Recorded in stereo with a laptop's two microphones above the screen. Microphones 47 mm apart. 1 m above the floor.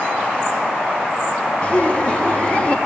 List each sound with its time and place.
1.6 s laughter: 25° left (ahead or behind), 0.9 m